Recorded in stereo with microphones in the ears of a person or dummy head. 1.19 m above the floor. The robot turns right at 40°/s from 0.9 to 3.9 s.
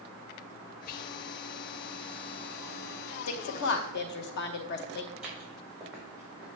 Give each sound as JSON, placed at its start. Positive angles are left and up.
{"t": 0.9, "sound": "whispering", "side_deg": 45, "distance_m": 0.8}
{"t": 3.3, "sound": "a woman speaking", "side_deg": 75, "distance_m": 1.0}
{"t": 5.1, "sound": "footsteps", "side_deg": -10, "distance_m": 3.5}